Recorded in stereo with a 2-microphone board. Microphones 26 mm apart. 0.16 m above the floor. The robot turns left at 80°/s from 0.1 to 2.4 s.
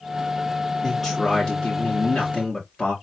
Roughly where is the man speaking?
Behind right.